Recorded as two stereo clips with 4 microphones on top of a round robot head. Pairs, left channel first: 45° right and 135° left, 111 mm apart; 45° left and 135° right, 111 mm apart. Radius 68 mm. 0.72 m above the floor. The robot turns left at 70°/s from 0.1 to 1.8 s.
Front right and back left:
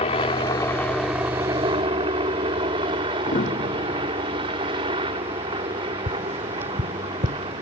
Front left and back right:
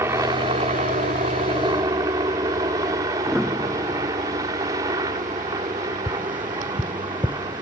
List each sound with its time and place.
0.0 s a helicopter: 70° right; by 7.6 s 170° left
3.3 s a piano: 45° right
6.1 s tapping: 145° left